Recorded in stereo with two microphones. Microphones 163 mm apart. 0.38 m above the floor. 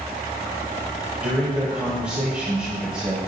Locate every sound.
1.2 s a man speaking: 10° right (ahead or behind), 2 m